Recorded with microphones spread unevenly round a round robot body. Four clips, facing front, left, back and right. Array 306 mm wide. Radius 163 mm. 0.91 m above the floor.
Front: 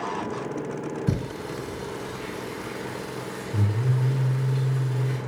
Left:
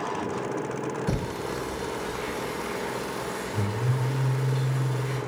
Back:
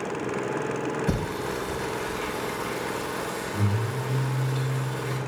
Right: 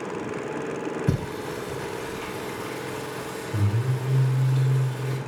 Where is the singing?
35° right, 4 m.